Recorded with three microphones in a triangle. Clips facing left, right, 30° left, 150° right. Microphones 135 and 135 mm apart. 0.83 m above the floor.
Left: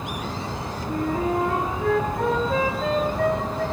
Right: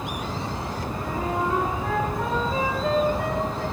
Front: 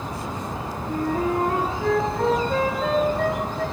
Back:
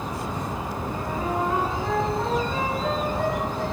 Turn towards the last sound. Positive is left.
turn(degrees=60)